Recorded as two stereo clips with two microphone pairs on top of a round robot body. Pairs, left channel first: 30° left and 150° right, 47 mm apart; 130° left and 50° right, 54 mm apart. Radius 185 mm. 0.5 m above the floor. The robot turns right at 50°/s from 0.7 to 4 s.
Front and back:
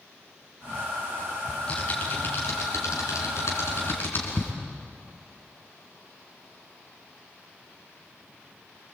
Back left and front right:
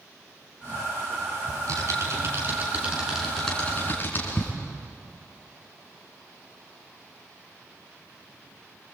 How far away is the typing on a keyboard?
About 5 m.